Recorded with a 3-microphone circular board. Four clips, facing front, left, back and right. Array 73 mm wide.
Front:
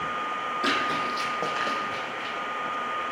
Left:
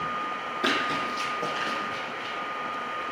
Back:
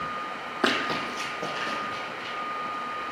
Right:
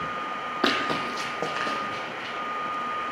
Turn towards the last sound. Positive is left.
turn(degrees=-45)